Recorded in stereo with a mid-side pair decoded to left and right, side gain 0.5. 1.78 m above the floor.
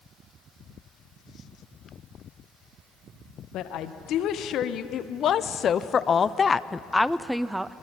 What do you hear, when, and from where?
3.5 s a woman speaking: 70° left, 2 m; by 7.7 s 20° right, 0.8 m